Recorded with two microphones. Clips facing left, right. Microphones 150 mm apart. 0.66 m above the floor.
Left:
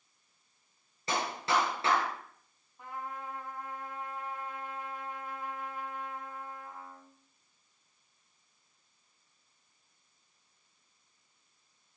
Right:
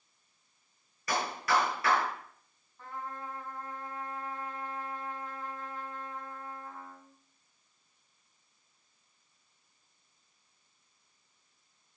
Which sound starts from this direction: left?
A clap, at 1.1 s.